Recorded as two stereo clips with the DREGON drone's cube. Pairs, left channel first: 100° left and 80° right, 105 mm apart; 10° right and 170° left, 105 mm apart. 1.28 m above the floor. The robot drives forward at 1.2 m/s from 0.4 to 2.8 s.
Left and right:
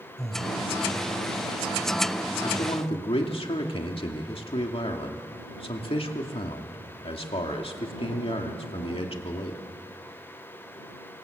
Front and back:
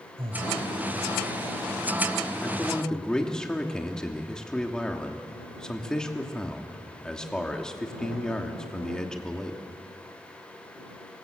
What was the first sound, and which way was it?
Breathing, 170° right.